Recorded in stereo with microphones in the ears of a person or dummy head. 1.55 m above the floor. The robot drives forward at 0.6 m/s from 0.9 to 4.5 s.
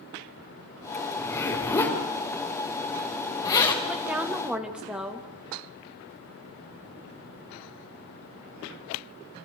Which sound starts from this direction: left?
A zipper, at 1.2 s.